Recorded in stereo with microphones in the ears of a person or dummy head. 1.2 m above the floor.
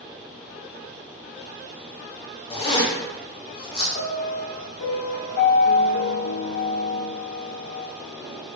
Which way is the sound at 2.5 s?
25° left (ahead or behind).